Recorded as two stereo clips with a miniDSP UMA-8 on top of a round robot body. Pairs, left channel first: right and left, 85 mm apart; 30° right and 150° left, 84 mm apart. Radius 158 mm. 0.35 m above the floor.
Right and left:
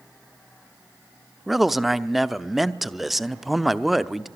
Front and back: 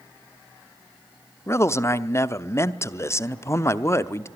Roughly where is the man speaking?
Ahead.